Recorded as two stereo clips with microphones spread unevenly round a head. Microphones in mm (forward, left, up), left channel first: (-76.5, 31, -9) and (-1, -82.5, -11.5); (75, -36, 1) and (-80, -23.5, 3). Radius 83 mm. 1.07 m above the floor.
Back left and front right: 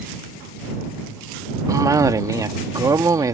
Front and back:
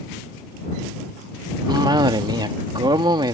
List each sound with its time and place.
1.7 s a cough: 120° right